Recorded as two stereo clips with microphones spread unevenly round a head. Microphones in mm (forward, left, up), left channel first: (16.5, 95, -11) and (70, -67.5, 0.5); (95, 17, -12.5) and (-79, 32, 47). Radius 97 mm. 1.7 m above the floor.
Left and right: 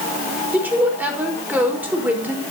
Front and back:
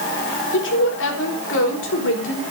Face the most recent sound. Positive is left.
turn(degrees=10)